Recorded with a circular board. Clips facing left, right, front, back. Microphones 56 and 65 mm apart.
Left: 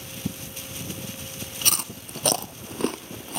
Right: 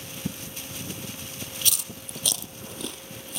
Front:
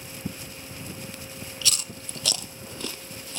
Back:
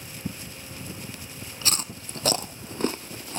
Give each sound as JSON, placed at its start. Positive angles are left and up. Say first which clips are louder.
{"t": 1.6, "sound": "chewing", "louder": "left 4 dB, back 2 dB", "azimuth_deg": 130, "distance_m": 0.5}